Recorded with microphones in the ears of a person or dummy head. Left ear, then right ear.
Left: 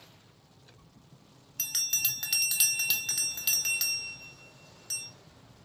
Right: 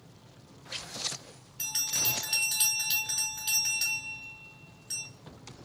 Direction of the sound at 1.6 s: 25° left (ahead or behind).